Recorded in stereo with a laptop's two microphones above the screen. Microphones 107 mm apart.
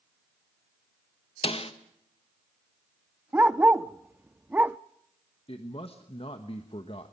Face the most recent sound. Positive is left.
turn(degrees=65)  # may be behind; listen again after turning